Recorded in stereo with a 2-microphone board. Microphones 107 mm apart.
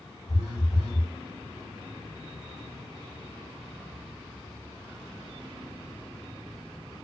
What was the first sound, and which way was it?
A phone buzzing, 40° right (ahead or behind).